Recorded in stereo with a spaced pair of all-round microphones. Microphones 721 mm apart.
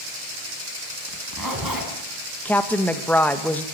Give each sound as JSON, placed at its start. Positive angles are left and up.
{"t": 1.1, "sound": "a zipper", "side_deg": -30, "distance_m": 3.5}
{"t": 2.5, "sound": "a woman speaking", "side_deg": 0, "distance_m": 1.5}